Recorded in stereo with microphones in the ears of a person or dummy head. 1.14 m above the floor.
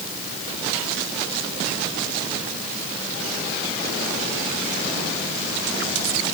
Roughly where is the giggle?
No giggle in this recording.